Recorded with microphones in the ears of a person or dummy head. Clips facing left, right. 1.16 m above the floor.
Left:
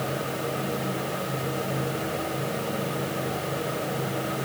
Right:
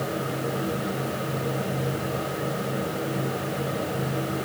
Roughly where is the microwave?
I don't hear a microwave.